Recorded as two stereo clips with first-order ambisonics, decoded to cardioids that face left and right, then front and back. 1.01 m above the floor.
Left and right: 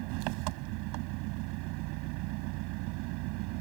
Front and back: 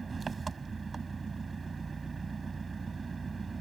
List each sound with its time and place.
0.0 s an engine running: 105° right